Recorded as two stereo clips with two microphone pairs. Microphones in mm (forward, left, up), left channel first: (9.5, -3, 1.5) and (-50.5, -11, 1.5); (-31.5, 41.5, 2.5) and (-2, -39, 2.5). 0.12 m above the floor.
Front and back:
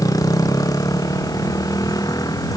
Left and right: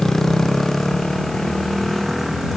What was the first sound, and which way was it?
A motorcycle, 25° left.